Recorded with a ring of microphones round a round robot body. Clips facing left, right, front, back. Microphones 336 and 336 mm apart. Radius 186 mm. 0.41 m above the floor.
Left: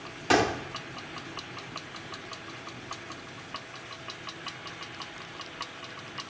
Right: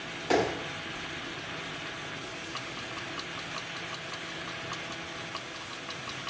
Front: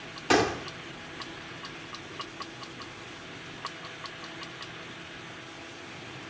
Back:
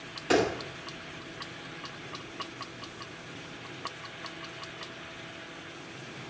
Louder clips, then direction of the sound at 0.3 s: Left 1 dB, even; 65° left.